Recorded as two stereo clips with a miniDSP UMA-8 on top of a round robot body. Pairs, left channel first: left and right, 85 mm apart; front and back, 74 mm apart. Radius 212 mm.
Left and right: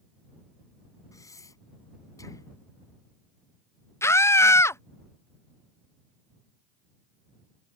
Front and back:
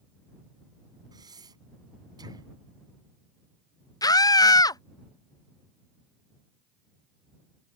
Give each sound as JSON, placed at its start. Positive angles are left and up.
{"t": 1.1, "sound": "breathing", "azimuth_deg": 145}
{"t": 4.0, "sound": "a scream", "azimuth_deg": 30}